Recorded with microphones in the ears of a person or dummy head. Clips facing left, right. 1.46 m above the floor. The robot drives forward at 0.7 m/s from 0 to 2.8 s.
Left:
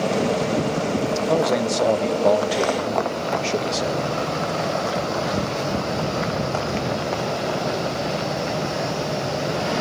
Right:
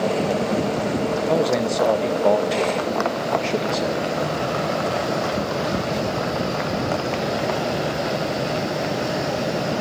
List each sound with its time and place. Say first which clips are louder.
1.3 s a man speaking: even; 5° right (ahead or behind), 1.2 m; by 4.1 s centre (ahead or behind), 2 m